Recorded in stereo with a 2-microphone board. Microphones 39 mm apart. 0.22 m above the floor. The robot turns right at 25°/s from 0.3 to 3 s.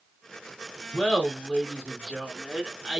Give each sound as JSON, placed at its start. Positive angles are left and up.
{"t": 0.9, "sound": "laughter", "side_deg": 25, "distance_m": 1.4}